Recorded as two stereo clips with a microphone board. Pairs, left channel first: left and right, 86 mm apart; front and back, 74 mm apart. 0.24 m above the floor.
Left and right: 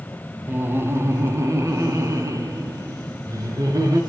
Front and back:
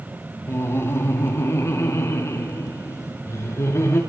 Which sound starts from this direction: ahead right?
Laughter, at 0.5 s.